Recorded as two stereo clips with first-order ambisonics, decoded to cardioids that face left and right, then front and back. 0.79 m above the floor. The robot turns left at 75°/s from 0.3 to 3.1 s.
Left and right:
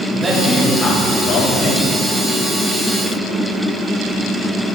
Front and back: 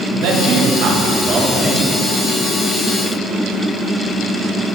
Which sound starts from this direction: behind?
A man speaking, at 0.1 s.